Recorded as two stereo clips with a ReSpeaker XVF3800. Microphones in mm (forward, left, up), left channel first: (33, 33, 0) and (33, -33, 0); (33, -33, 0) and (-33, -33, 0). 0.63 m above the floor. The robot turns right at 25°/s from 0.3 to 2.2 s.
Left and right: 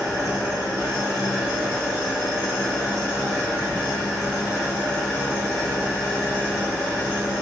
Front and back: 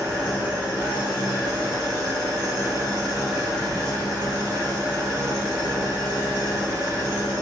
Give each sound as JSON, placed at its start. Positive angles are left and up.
{"t": 0.0, "sound": "an engine running", "azimuth_deg": -60, "distance_m": 1.9}